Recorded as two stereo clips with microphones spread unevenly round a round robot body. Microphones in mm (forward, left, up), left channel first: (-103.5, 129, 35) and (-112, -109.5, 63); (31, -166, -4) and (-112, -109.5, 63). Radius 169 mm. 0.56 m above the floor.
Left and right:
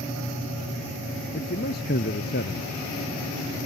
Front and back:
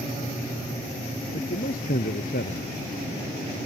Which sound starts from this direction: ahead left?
A man speaking, at 1.3 s.